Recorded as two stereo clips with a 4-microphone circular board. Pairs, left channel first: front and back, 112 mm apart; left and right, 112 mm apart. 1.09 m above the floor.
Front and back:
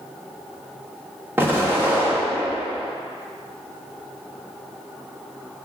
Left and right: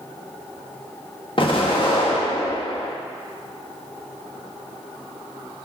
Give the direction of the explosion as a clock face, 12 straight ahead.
8 o'clock.